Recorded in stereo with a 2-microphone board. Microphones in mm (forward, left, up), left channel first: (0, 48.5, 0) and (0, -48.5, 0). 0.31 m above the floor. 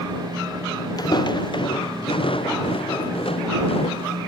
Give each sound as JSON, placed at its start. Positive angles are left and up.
{"t": 1.0, "sound": "footsteps", "side_deg": 45}